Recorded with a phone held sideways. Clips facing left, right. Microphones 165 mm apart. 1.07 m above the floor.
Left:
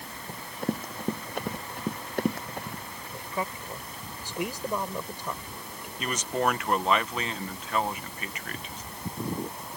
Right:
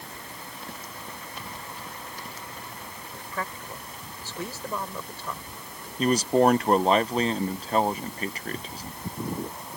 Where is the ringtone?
No ringtone in this recording.